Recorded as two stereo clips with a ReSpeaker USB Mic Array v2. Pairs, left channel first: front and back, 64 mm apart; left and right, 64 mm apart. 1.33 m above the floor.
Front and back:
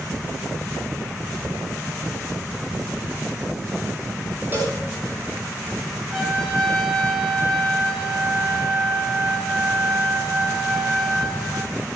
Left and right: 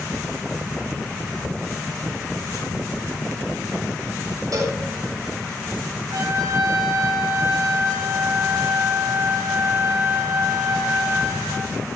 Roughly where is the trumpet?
Right.